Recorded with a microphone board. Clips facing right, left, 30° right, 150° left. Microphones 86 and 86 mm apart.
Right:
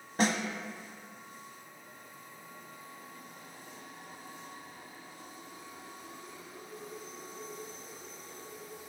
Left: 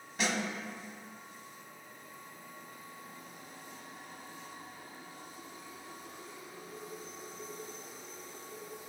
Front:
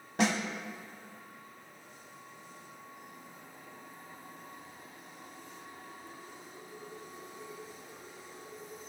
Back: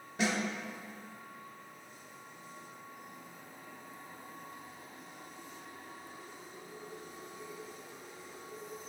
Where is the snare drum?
45° right, 0.8 m.